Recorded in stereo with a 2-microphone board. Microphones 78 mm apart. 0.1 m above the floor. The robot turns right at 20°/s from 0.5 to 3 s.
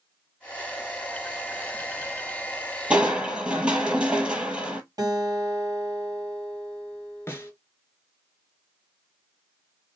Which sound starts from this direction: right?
A guitar, at 5.0 s.